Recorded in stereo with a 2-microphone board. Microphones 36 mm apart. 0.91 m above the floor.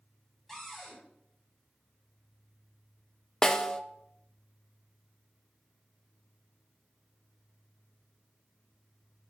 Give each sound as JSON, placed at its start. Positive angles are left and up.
{"t": 0.5, "sound": "a cupboard door", "side_deg": 0, "distance_m": 4.5}
{"t": 3.4, "sound": "a snare drum", "side_deg": 20, "distance_m": 0.7}